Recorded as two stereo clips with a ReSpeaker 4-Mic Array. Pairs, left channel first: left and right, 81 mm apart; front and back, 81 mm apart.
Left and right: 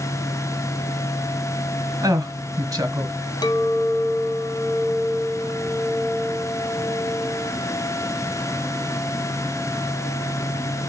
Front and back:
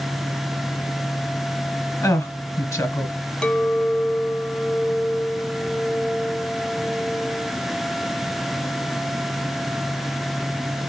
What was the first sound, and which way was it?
A woman speaking, 45° right.